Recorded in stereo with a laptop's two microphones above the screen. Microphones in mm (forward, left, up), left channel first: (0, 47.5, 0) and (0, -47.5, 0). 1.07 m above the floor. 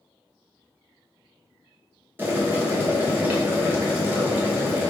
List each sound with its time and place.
2.2 s boiling: 20° right (ahead or behind), 0.6 m